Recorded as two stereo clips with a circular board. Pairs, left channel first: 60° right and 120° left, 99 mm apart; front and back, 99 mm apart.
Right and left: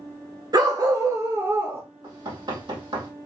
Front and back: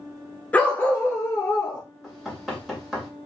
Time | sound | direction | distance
0.5 | a dog barking | 75° left | 1.0 m
2.0 | knocking | 95° left | 2.5 m